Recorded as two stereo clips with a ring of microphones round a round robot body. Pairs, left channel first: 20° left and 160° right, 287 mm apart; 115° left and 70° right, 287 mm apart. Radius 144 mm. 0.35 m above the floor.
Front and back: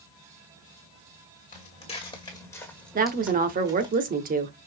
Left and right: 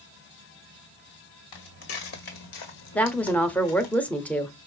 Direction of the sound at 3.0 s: 170° right.